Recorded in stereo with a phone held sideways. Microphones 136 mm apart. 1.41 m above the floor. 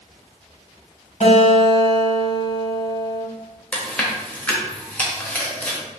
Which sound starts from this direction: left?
A guitar, at 1.2 s.